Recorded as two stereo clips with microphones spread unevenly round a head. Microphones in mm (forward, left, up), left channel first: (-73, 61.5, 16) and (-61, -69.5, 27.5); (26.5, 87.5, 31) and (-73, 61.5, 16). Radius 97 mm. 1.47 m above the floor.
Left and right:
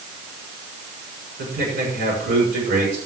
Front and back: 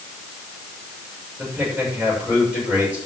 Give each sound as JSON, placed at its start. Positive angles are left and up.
{"t": 1.4, "sound": "a man speaking", "azimuth_deg": -75, "distance_m": 7.0}